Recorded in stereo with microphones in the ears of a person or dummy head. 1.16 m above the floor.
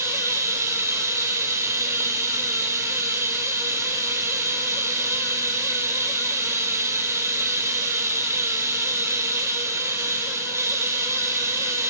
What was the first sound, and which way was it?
Running water, 20° right (ahead or behind).